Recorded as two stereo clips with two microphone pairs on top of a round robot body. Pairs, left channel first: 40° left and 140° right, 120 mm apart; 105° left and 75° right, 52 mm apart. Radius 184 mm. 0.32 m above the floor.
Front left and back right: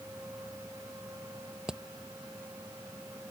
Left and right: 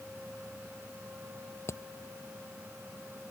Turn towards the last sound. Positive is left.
turn(degrees=135)